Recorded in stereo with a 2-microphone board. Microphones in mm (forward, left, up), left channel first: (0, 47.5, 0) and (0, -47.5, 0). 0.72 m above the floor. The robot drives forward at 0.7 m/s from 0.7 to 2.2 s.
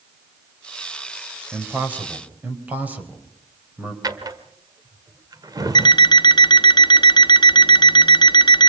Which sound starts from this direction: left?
An alarm clock, at 5.8 s.